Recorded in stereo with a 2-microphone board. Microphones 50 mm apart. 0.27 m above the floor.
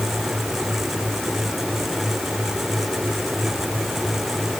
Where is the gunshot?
No gunshot in this recording.